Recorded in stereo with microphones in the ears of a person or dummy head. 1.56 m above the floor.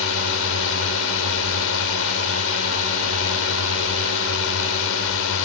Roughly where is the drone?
Left.